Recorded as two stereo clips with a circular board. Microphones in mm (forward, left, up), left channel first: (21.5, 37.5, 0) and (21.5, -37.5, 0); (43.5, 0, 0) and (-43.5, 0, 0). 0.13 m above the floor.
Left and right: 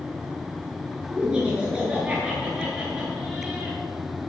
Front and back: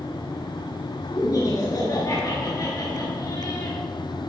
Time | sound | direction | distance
1.1 | laughter | 20° right | 1.7 m